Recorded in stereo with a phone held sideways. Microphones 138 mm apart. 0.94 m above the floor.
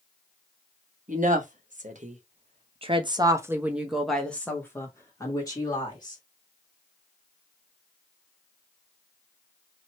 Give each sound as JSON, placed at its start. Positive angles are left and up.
{"t": 1.1, "sound": "a woman speaking", "side_deg": -70, "distance_m": 1.4}